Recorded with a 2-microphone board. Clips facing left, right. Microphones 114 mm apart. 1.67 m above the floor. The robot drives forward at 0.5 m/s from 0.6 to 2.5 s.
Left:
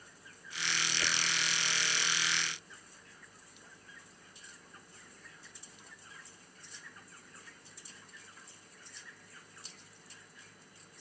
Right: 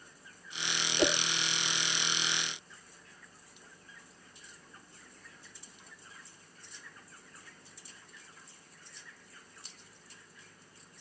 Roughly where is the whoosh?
Right.